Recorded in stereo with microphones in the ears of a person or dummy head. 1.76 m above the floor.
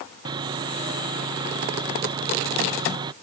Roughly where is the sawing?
Right.